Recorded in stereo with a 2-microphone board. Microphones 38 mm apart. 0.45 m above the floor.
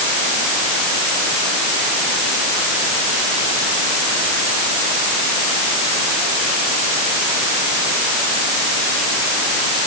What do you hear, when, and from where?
Only background noise.